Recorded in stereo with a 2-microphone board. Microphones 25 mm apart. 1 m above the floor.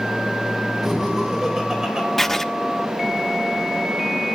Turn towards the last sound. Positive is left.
turn(degrees=10)  # may be behind; listen again after turning